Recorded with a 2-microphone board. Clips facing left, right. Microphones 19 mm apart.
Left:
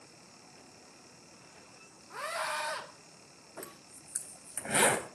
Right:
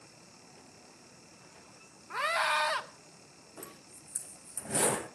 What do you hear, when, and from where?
2.1 s a scream: 50° right (ahead or behind), 1.7 m
3.6 s a zipper: 70° left (ahead or behind), 3 m